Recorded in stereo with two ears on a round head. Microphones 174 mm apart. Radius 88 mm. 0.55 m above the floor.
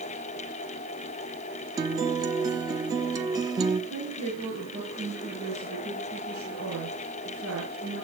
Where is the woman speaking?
80° right, 8.5 m.